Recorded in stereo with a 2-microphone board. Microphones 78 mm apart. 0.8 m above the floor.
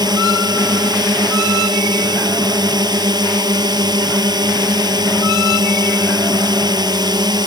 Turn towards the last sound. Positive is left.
turn(degrees=-60)  # may be behind; listen again after turning